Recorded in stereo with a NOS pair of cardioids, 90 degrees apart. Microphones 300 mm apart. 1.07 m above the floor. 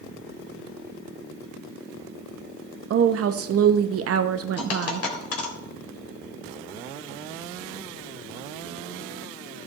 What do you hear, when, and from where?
2.9 s a woman speaking: 45° right, 0.9 m
4.6 s a dropped coin: 45° left, 2.5 m